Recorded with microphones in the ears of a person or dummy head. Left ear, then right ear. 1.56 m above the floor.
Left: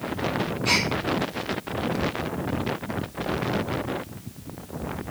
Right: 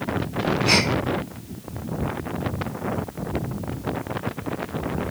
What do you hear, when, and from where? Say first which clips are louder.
0.7 s a gasp: right 3 dB; 25° left (ahead or behind), 0.7 m